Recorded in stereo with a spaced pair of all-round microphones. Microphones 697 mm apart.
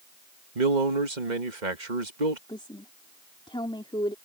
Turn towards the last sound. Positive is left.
turn(degrees=5)  # may be behind; listen again after turning